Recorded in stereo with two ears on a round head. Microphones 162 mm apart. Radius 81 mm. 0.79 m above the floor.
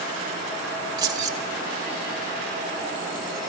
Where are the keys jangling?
20° right (ahead or behind), 0.8 m.